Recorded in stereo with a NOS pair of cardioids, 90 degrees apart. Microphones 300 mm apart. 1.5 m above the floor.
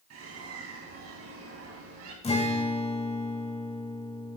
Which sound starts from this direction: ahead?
A guitar, at 2.2 s.